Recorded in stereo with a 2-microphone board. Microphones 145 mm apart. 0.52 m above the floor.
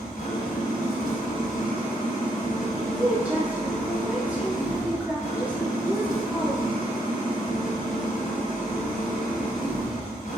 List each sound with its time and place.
0.0 s an engine running: 80° left, 1.0 m
2.7 s a woman speaking: 10° right (ahead or behind), 1.3 m